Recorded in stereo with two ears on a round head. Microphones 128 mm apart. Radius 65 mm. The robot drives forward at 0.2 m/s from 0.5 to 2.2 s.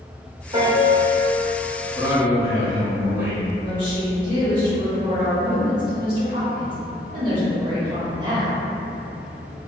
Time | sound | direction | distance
0.5 | a piano | 25° right (ahead or behind) | 1.3 m
1.9 | a man speaking | 15° right (ahead or behind) | 0.5 m
3.5 | a woman speaking | 30° right (ahead or behind) | 1.0 m